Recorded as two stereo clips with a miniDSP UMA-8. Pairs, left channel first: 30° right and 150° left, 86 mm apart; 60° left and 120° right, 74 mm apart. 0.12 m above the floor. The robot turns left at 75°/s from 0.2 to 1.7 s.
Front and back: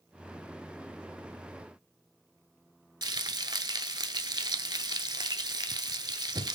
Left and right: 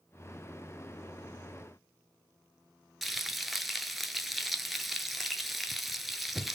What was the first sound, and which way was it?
Frying, 150° left.